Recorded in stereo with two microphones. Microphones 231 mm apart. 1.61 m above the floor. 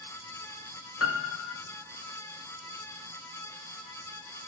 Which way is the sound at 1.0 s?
80° left.